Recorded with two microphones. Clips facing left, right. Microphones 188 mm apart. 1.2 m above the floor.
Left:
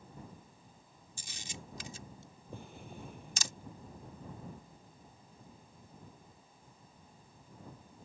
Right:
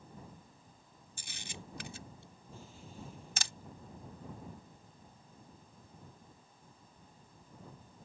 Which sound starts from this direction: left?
A drawer, at 2.5 s.